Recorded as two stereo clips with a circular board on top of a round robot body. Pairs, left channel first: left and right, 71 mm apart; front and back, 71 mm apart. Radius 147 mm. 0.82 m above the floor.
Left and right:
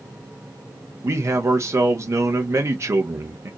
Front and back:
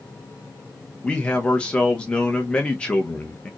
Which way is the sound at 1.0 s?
70° right.